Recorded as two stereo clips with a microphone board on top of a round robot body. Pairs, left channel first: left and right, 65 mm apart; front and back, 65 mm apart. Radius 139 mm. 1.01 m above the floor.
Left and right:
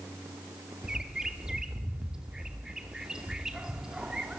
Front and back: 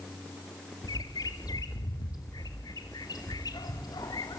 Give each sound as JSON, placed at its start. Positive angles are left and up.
{"t": 0.8, "sound": "a bird", "azimuth_deg": -10, "distance_m": 2.5}